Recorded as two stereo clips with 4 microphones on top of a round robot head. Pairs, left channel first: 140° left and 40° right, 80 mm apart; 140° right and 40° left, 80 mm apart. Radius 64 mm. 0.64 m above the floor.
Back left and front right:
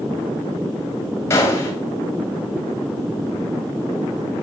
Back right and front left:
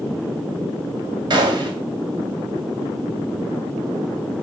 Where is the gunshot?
80° left, 2.5 m.